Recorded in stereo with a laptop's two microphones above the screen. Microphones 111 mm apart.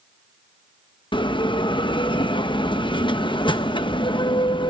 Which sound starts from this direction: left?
A bell, at 1.1 s.